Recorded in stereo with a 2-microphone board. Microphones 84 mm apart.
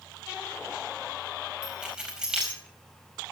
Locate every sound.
1.6 s keys jangling: 10° right (ahead or behind), 4.5 m